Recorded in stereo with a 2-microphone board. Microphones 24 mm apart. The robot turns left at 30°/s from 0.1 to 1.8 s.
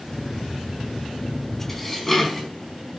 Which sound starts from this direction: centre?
Dishes clattering, at 1.7 s.